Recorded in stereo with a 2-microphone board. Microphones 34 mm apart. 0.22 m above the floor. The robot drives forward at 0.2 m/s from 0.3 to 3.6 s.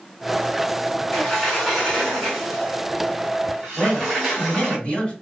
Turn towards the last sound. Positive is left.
turn(degrees=25)  # may be behind; listen again after turning